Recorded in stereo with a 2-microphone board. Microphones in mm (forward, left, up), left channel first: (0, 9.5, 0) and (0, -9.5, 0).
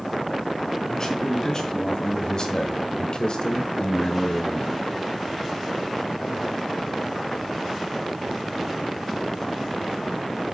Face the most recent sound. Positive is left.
turn(degrees=30)  # may be behind; listen again after turning